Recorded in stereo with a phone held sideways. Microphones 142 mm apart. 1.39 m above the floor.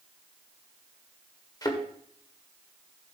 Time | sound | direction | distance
1.6 | a thud | 25° left (ahead or behind) | 1.5 m